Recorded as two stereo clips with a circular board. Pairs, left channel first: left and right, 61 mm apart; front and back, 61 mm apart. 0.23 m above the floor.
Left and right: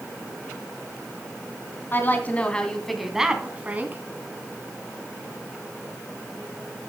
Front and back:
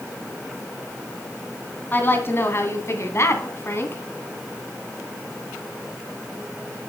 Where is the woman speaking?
45° left, 2.5 m; by 4.0 s 40° right, 2.5 m.